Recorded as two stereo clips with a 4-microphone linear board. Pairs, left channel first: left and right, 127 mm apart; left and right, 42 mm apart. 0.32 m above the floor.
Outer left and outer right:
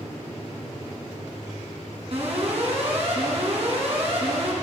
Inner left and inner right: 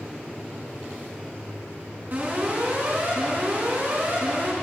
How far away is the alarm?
About 3.5 m.